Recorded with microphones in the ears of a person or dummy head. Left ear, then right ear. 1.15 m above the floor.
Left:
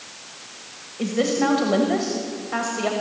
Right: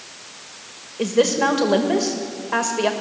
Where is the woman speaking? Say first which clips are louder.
Right 4 dB; 25° right (ahead or behind), 1.5 m.